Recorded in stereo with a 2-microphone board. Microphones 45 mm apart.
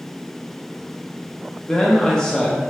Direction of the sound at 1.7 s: 20° left (ahead or behind).